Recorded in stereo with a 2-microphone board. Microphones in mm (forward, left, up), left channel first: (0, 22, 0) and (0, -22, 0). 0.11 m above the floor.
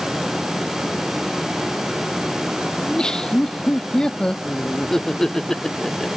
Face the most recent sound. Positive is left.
turn(degrees=10)  # may be behind; listen again after turning